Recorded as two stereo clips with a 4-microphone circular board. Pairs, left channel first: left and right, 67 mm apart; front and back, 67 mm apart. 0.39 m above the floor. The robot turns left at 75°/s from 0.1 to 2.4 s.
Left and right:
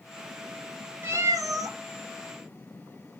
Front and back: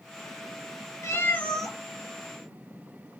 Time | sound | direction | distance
1.0 | a cat meowing | 40° right | 0.7 m